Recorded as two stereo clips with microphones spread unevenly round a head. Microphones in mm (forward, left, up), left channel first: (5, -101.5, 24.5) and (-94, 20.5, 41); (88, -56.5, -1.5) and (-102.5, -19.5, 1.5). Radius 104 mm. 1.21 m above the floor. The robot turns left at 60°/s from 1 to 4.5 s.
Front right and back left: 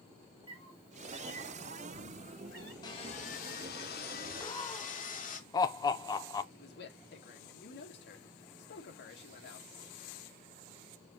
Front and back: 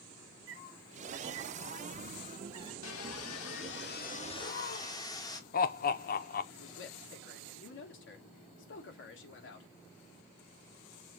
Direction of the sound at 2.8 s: 20° left.